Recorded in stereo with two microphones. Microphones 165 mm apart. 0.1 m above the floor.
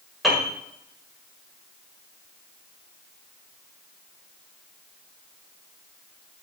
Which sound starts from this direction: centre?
A piano, at 0.2 s.